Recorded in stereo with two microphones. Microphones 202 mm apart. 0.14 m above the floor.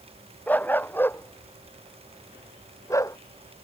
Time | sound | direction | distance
0.5 | a dog barking | 10° left (ahead or behind) | ?